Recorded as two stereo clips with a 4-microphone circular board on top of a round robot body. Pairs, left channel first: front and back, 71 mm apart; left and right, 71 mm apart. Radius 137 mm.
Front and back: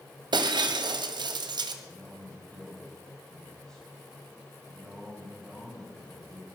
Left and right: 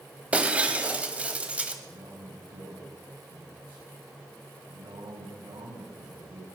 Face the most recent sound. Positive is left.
turn(degrees=-80)